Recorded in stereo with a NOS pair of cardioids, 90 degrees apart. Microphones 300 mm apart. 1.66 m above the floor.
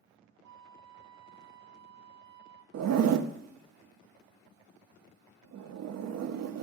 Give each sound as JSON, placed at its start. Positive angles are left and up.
{"t": 0.4, "sound": "a flute", "azimuth_deg": -65, "distance_m": 1.0}
{"t": 2.7, "sound": "a zipper", "azimuth_deg": -60, "distance_m": 0.6}